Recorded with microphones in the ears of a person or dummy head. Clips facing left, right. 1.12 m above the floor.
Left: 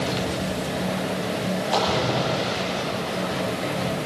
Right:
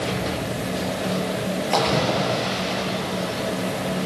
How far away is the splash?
About 7.5 m.